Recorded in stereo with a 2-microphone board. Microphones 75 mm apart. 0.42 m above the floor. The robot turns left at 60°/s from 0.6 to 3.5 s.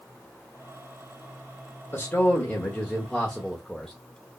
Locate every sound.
1.9 s a man speaking: 30° left (ahead or behind), 0.9 m; by 3.9 s 5° left (ahead or behind), 0.9 m